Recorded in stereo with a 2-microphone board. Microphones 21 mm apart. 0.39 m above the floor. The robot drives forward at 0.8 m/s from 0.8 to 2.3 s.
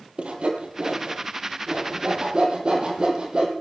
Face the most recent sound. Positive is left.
turn(degrees=-45)  # may be behind; listen again after turning